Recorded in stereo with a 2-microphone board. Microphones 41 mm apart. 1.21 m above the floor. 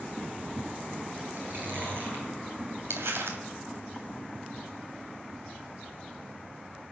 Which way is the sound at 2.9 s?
75° right (ahead or behind).